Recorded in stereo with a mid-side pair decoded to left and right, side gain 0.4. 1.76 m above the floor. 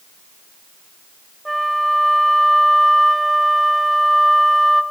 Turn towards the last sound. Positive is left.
turn(degrees=-10)